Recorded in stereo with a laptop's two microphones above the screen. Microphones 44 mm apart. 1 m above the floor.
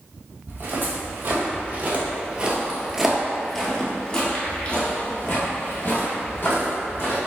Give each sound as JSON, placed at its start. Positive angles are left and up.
{"t": 0.5, "sound": "footsteps", "side_deg": -55, "distance_m": 1.7}